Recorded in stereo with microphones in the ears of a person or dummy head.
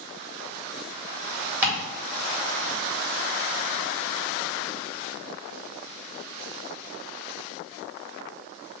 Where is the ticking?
10° right (ahead or behind), 1.9 m.